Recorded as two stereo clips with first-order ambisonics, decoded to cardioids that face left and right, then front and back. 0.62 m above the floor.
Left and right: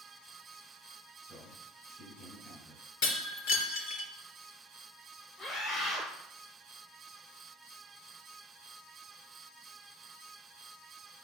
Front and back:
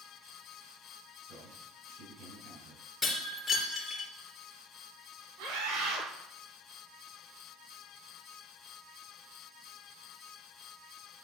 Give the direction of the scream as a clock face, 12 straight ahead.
6 o'clock.